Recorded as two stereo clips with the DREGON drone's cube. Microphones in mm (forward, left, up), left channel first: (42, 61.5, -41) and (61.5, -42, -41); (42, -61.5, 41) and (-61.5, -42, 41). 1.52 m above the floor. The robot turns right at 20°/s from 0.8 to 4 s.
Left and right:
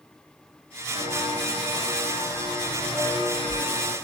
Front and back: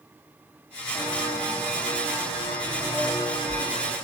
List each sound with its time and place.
0.9 s footsteps: 45° right, 4 m; by 4.0 s 35° right, 5 m